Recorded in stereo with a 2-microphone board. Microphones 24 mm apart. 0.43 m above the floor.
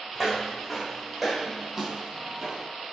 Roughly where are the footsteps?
Centre.